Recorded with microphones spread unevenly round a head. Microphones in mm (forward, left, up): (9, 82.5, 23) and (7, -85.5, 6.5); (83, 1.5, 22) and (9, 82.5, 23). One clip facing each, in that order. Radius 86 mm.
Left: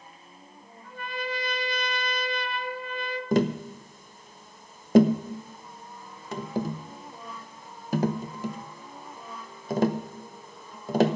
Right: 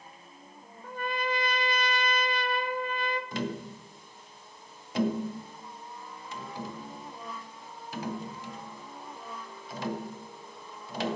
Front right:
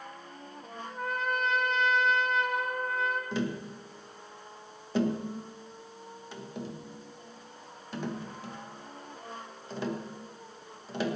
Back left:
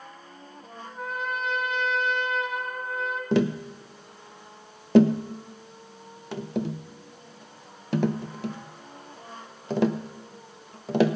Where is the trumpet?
140° right, 0.8 m.